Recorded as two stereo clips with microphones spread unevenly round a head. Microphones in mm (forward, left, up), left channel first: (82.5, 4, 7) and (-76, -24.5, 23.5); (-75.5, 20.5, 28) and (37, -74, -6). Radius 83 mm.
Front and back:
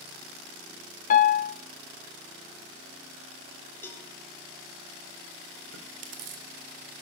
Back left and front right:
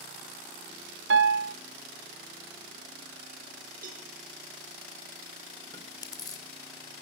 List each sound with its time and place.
1.1 s a piano: 35° right, 1.3 m
3.8 s a cowbell: 65° right, 5 m
5.7 s chewing: 155° right, 3.5 m